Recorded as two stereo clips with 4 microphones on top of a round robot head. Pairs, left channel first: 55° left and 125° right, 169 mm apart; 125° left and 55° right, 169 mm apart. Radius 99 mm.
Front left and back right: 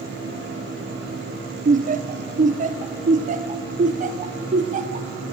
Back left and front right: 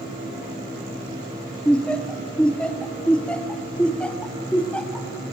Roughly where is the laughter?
Behind right.